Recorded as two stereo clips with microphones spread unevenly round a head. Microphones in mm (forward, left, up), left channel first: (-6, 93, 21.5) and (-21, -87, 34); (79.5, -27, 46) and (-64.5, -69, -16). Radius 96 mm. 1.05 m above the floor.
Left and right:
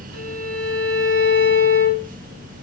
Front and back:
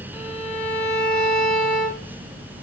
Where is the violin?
55° right, 2.5 m.